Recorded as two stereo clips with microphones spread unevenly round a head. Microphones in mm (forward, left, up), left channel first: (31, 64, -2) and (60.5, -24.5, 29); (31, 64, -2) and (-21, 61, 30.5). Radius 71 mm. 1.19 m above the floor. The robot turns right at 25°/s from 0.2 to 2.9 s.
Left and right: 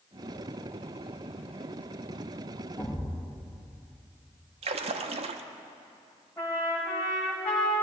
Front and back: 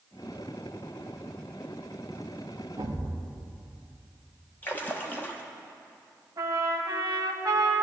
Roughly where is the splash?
Ahead right.